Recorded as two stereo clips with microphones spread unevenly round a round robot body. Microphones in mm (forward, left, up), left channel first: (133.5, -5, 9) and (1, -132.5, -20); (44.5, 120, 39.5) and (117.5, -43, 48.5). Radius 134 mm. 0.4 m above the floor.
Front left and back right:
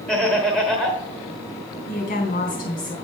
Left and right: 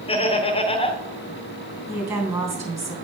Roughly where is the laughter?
Behind left.